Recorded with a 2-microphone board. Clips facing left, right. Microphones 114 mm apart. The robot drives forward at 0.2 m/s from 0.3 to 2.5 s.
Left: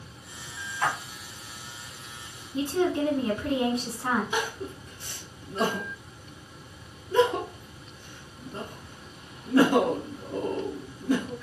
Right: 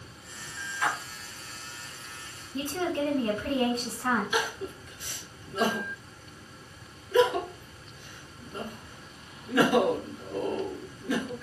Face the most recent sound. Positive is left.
turn(degrees=30)  # may be behind; listen again after turning